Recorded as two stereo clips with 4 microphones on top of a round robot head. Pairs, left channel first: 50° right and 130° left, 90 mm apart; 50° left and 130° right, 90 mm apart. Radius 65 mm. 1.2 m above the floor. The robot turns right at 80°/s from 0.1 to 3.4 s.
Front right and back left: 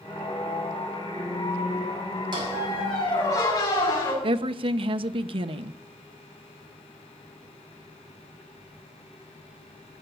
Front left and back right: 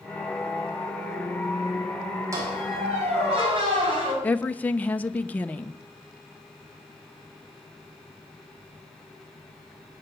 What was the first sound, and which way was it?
A squeak, 170° left.